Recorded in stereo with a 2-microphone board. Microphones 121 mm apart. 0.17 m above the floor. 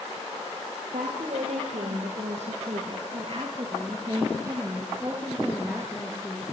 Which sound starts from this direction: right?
A woman speaking, at 0.9 s.